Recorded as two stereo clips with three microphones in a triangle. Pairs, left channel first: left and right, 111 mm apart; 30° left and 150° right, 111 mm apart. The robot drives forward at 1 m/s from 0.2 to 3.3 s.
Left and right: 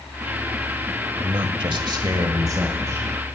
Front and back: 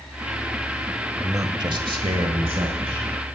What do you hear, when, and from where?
1.2 s a man speaking: 90° right, 1.2 m; by 3.1 s 155° right, 2 m